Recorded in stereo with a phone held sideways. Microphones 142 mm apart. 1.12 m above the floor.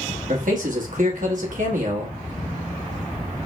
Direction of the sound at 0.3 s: 65° right (ahead or behind).